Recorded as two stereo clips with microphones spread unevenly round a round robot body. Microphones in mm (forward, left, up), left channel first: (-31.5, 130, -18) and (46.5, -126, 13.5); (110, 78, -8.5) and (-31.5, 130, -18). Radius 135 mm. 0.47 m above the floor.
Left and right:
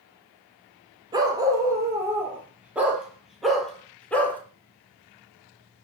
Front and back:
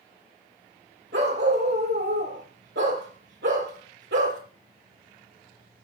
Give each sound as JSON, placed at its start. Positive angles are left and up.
{"t": 1.1, "sound": "a dog barking", "azimuth_deg": -150, "distance_m": 4.5}